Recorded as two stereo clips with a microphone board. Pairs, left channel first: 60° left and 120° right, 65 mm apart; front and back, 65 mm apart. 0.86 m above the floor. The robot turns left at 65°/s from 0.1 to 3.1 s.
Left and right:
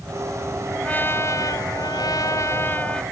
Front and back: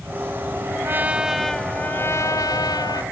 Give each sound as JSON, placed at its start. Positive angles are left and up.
{"t": 0.8, "sound": "a trumpet", "azimuth_deg": 130}